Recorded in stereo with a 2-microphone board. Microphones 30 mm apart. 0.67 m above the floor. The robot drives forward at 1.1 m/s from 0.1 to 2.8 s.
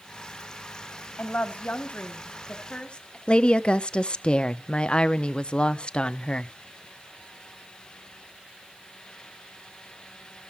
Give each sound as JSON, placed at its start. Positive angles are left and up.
{"t": 1.2, "sound": "a woman speaking", "side_deg": 60, "distance_m": 2.0}
{"t": 3.3, "sound": "a woman speaking", "side_deg": 35, "distance_m": 0.8}